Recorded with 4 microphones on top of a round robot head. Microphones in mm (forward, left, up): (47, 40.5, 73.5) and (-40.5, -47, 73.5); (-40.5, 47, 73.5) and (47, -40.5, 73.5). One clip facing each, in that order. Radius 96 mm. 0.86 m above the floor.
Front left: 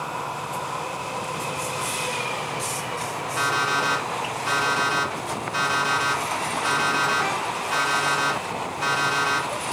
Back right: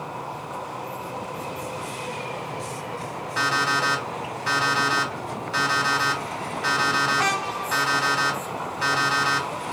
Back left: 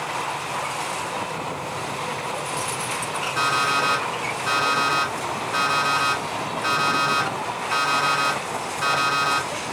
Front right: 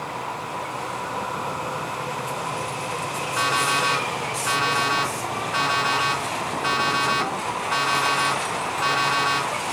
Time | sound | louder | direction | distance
3.4 | an alarm clock | even, even | 170° right | 2 m